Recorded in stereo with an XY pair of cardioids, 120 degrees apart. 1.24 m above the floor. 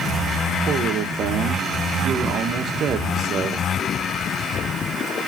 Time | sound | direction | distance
0.7 | a man speaking | 55° right | 1.4 m